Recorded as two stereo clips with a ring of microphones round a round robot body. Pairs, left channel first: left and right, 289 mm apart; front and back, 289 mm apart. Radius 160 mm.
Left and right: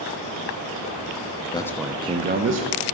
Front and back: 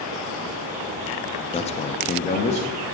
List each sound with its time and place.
1.5 s a man speaking: 40° left, 0.6 m; by 2.9 s 70° right, 0.8 m